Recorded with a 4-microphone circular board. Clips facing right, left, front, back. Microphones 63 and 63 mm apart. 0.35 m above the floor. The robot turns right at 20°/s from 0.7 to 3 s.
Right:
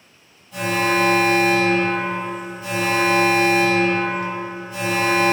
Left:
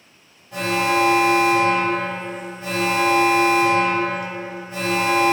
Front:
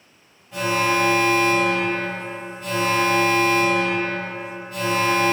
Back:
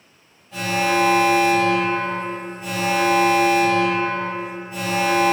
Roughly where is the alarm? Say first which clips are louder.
Even, even; left.